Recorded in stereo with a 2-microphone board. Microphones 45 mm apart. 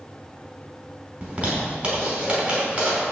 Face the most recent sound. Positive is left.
turn(degrees=-30)  # may be behind; listen again after turning